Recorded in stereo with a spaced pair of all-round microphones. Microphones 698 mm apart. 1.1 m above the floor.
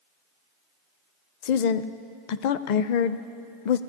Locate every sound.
1.4 s a woman speaking: 80° left, 0.5 m